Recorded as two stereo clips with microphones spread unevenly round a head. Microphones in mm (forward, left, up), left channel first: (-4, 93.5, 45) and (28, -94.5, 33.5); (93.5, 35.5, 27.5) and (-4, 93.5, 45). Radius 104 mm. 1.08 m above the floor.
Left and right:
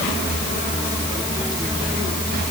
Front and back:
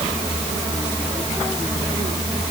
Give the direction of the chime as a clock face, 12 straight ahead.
No chime in this recording.